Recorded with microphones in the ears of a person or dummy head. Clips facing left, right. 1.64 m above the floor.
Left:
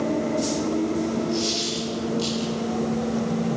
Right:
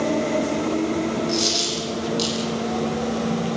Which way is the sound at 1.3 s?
80° right.